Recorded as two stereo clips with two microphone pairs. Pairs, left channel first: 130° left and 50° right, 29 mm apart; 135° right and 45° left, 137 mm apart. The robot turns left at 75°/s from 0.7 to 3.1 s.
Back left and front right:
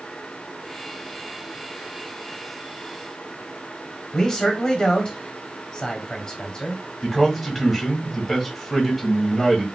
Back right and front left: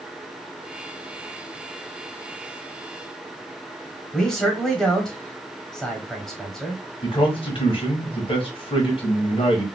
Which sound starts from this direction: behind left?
A man speaking, at 4.1 s.